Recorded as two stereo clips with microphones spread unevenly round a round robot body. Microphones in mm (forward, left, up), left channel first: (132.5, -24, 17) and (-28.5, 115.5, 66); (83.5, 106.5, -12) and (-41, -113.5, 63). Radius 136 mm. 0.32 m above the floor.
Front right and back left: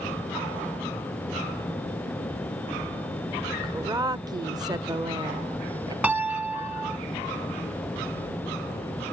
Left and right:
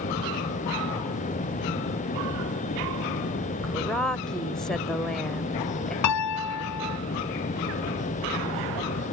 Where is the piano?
55° left.